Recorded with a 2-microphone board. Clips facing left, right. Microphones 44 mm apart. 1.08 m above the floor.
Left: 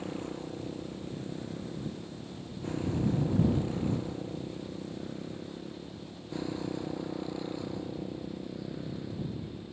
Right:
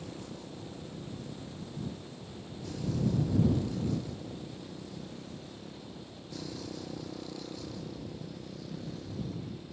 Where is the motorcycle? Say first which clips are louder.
Left 6 dB; 35° left (ahead or behind); by 9.7 s 20° left (ahead or behind).